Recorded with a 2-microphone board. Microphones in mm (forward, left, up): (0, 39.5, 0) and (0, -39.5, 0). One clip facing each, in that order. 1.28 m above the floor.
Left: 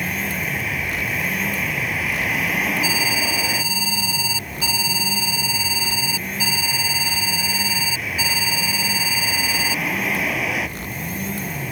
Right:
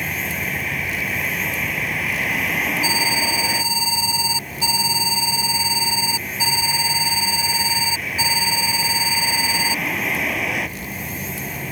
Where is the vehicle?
Centre (ahead or behind).